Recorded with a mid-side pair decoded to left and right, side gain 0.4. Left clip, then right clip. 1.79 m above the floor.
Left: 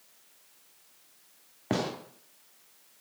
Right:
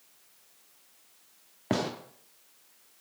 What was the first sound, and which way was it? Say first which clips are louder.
A gunshot: right 1 dB; 15° right.